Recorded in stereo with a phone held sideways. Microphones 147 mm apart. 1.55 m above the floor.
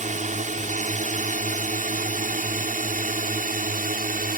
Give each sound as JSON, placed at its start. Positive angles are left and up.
{"t": 0.0, "sound": "a drone", "side_deg": -60}